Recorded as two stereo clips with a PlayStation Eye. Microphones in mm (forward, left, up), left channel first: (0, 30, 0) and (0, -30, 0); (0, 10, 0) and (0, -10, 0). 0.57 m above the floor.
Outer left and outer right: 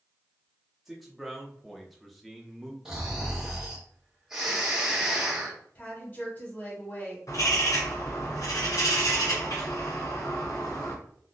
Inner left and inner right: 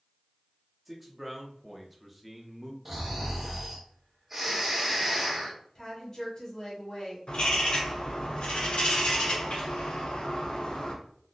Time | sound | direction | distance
0.8 | a man speaking | centre (ahead or behind) | 0.7 m
2.9 | snoring | 10° right (ahead or behind) | 1.2 m
5.8 | a woman speaking | 40° left (ahead or behind) | 1.6 m
7.3 | a bird | 75° left (ahead or behind) | 1.3 m